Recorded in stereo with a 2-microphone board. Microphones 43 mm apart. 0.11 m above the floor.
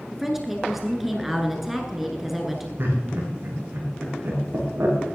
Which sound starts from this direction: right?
Laughter, at 2.8 s.